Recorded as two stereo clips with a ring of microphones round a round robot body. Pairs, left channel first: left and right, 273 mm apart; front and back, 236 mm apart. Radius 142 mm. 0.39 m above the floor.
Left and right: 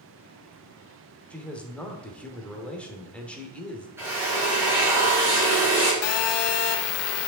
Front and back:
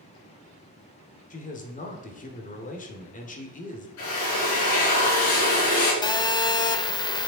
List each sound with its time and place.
1.3 s a man speaking: 10° left, 1.2 m
4.0 s a drill: 10° right, 4 m
6.0 s a phone buzzing: 70° left, 0.7 m